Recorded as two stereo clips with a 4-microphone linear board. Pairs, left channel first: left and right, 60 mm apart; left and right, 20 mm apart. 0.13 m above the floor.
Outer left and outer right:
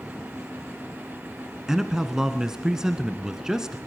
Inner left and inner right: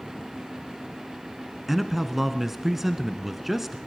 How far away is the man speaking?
About 1.2 m.